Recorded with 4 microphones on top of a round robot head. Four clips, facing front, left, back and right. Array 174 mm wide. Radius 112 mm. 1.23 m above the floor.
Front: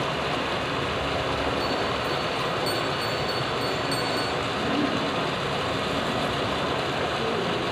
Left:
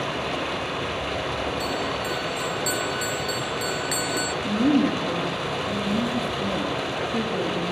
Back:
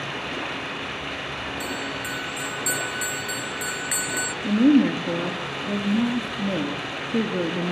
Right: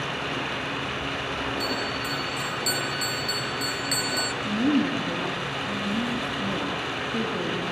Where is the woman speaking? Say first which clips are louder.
Left 3 dB, back 14 dB; straight behind, 3 m.